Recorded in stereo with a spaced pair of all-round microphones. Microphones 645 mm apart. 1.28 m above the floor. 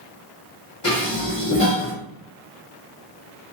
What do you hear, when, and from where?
0.8 s dishes clattering: 55° left (ahead or behind), 2.5 m